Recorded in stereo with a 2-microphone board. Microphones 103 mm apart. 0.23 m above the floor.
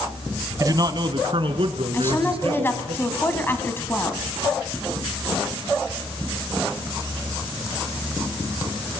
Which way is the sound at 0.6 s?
35° right (ahead or behind).